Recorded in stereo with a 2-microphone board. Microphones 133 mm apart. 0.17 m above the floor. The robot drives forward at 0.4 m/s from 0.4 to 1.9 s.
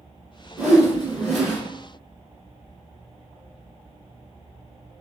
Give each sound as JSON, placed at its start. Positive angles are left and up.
{"t": 0.6, "sound": "a whoosh", "side_deg": 0, "distance_m": 1.4}